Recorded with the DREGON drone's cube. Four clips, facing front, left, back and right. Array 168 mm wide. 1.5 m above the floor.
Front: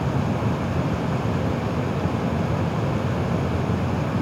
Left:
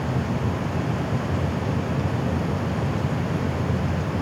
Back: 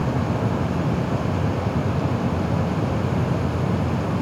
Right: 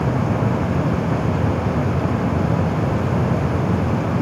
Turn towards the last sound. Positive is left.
No sound to turn to.